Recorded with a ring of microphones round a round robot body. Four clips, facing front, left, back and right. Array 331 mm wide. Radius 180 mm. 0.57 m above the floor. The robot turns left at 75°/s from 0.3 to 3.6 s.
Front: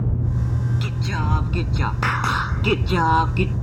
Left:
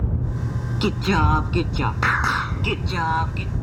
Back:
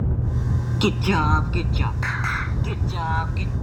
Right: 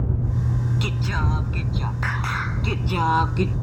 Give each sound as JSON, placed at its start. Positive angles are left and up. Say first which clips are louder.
{"t": 0.8, "sound": "singing", "louder": "left 7 dB, back 6 dB", "azimuth_deg": 145}